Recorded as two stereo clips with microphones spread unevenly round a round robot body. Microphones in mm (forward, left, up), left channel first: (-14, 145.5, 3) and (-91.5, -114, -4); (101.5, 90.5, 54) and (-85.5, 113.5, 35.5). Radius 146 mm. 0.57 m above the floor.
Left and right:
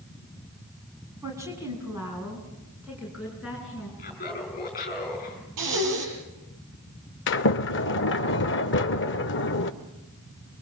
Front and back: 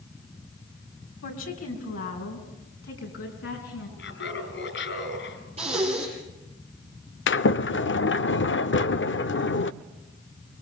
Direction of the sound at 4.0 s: 10° left.